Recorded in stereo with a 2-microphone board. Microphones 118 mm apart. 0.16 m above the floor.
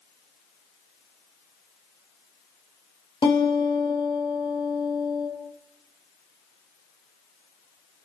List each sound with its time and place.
3.2 s a guitar: 45° left (ahead or behind), 3.5 m